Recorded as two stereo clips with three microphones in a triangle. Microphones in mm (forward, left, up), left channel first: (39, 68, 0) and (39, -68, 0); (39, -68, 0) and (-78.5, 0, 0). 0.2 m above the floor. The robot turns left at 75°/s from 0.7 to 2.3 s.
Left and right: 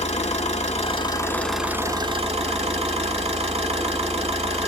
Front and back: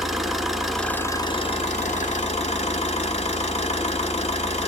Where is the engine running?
60° left, 0.7 m; by 4.7 s 60° right, 0.7 m.